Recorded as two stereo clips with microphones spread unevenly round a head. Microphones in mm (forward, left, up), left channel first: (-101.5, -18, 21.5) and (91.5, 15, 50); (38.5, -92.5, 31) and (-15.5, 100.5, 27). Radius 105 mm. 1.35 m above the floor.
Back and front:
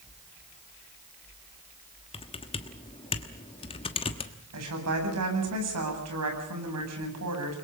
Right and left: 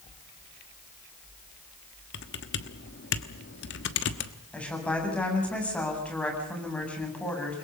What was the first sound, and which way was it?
Typing on a keyboard, 105° right.